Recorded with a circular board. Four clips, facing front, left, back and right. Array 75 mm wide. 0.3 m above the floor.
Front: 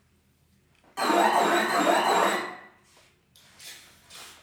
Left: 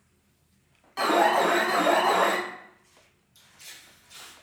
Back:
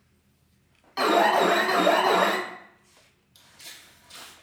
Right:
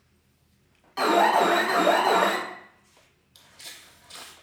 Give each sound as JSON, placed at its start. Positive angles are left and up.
{"t": 1.0, "sound": "an alarm", "azimuth_deg": -175, "distance_m": 0.6}
{"t": 3.4, "sound": "footsteps", "azimuth_deg": -105, "distance_m": 0.8}